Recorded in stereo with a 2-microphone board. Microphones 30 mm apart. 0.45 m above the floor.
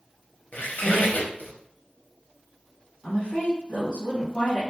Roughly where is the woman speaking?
Left.